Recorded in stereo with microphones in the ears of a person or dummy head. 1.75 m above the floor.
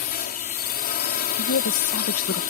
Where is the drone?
50° left (ahead or behind).